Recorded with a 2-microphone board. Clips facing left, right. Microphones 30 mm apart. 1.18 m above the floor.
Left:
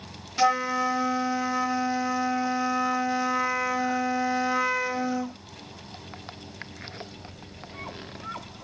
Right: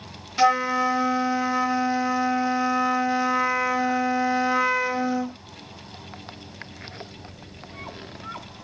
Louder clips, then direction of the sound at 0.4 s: Right 3 dB; 10° right (ahead or behind).